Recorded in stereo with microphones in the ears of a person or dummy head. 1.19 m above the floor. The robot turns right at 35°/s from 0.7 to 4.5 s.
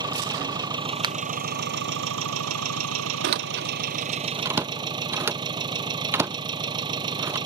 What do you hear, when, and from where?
0.0 s an engine running: 155° right; by 7.5 s 20° right
1.0 s a finger snap: 25° right (ahead or behind); by 1.2 s 30° right (ahead or behind)
3.2 s a door slam: 50° right (ahead or behind); by 7.4 s 10° right (ahead or behind)